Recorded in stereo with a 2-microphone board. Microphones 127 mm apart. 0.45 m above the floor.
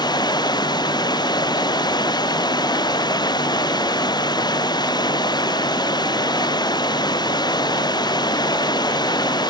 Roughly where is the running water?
Left.